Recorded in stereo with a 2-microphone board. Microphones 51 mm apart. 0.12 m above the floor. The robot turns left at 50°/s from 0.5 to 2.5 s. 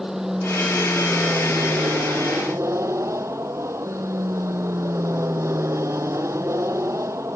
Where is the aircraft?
10° right; by 7.4 s 110° right.